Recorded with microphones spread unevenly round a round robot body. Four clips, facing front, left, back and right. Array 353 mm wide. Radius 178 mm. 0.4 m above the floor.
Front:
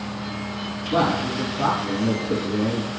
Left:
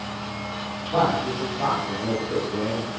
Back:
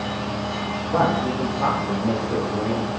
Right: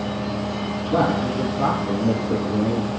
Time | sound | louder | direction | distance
0.9 | a man speaking | right 1 dB, back 1 dB | 65° right | 4.5 m